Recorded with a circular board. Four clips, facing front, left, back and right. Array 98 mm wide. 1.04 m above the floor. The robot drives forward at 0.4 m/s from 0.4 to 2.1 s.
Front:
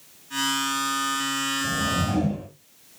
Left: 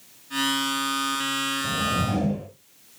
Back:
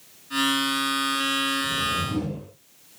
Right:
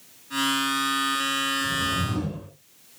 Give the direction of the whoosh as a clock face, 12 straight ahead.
10 o'clock.